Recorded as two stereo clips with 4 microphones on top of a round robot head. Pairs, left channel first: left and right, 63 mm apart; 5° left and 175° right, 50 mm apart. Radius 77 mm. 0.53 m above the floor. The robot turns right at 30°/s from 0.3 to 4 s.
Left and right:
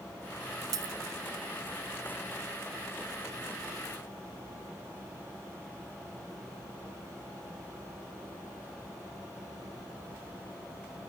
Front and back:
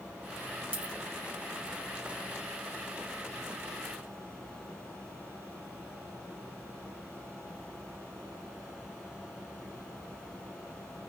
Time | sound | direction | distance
0.7 | a dropped coin | 115° right | 0.7 m